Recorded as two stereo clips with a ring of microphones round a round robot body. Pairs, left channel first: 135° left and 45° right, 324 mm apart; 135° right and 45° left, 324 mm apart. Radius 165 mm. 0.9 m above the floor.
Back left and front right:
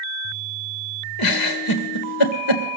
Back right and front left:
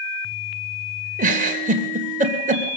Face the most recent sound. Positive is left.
turn(degrees=110)